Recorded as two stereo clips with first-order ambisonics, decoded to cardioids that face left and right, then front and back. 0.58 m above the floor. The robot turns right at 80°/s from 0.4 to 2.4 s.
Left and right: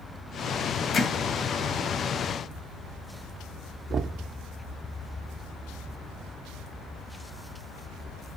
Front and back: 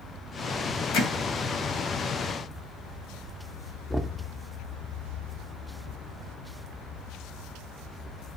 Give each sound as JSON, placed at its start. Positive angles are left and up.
{"t": 0.9, "sound": "hammering", "azimuth_deg": 25, "distance_m": 1.8}
{"t": 3.9, "sound": "knocking", "azimuth_deg": -95, "distance_m": 0.6}